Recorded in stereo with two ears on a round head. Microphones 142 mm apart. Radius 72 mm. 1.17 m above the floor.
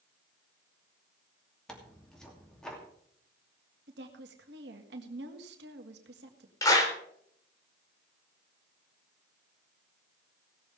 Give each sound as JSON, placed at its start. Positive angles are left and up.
{"t": 1.7, "sound": "tearing paper", "side_deg": 5, "distance_m": 2.5}
{"t": 3.9, "sound": "a woman speaking", "side_deg": -80, "distance_m": 1.7}
{"t": 6.6, "sound": "a clap", "side_deg": 20, "distance_m": 3.0}